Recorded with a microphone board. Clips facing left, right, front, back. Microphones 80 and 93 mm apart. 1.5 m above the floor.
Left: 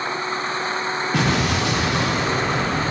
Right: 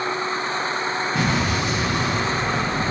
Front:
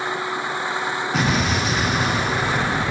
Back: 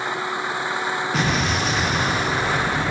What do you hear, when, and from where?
1.1 s an explosion: 90° left, 1.1 m